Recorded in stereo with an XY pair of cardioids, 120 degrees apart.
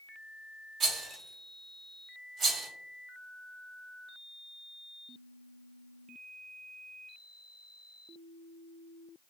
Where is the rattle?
50° right, 1.2 m.